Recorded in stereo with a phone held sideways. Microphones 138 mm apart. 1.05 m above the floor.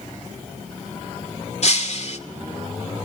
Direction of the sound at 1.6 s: 55° left (ahead or behind).